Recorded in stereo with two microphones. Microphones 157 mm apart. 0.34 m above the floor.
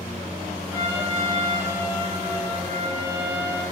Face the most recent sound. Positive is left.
turn(degrees=-15)  # may be behind; listen again after turning